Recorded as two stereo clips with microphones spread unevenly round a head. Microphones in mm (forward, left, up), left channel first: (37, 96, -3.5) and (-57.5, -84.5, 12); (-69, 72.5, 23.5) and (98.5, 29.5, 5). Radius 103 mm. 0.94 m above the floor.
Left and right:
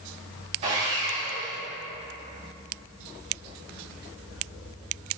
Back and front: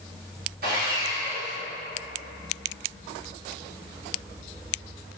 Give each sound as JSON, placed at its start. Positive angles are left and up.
{"t": 0.6, "sound": "sawing", "azimuth_deg": -60, "distance_m": 2.5}